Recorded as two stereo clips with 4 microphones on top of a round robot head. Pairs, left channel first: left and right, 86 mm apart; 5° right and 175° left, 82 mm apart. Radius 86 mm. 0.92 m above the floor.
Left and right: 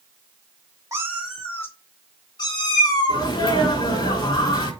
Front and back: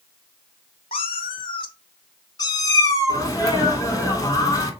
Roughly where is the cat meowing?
Ahead right.